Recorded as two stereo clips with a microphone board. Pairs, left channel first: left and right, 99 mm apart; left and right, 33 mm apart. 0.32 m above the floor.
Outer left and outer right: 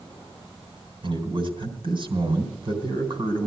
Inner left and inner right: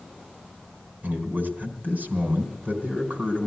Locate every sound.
1.0 s a man speaking: 55° right (ahead or behind), 3.5 m